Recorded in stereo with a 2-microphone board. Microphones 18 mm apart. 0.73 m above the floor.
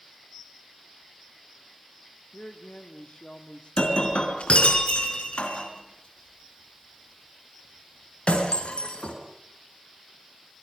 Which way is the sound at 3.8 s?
75° left (ahead or behind).